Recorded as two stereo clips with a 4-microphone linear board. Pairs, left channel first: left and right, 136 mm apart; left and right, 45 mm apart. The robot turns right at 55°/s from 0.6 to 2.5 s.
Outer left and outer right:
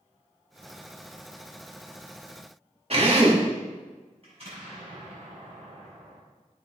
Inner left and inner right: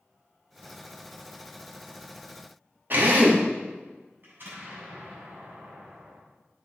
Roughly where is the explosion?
Right.